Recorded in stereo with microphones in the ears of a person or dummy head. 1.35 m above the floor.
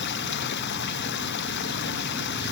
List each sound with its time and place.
0.0 s running water: 60° left (ahead or behind)